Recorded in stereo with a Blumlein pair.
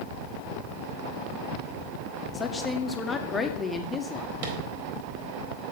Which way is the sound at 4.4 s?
50° right.